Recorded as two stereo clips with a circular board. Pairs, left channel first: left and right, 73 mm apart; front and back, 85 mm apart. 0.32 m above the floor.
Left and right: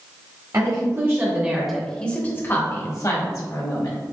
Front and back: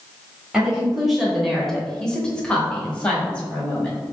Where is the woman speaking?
100° right, 1.2 m; by 4.0 s 75° left, 1.8 m.